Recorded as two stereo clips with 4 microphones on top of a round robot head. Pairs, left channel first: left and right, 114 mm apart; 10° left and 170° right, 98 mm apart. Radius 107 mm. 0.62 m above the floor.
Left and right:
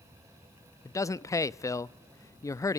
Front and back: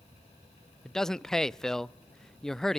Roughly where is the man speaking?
Left.